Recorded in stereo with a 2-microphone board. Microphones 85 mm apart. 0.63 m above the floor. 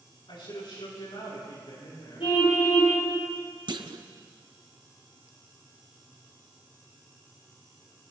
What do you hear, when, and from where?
0.3 s a man speaking: 80° left, 8 m; by 2.3 s 85° left, 8 m
2.2 s a car horn: 85° left, 7 m
3.7 s a clunk: 65° right (ahead or behind), 0.8 m